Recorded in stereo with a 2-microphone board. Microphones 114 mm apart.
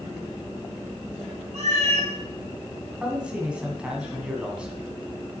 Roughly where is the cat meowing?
Right.